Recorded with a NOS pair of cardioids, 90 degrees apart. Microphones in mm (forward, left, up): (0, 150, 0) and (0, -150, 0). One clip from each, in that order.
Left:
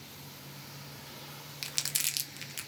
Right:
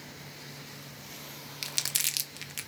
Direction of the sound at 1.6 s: 5° right.